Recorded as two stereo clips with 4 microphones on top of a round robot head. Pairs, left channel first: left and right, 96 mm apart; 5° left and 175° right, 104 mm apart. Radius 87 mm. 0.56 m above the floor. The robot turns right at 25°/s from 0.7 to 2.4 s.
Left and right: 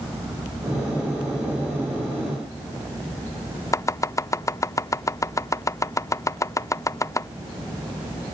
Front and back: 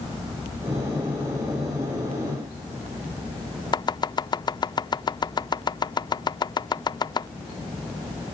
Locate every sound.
3.7 s chopping: 40° left